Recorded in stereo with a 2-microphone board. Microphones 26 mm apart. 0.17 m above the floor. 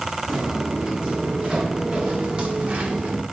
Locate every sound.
0.3 s footsteps: 20° right (ahead or behind), 4 m; by 3.2 s 45° right (ahead or behind), 2 m